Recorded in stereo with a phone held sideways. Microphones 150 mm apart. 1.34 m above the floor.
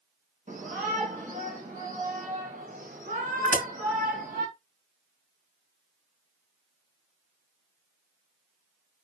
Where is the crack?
55° right (ahead or behind), 6.5 m.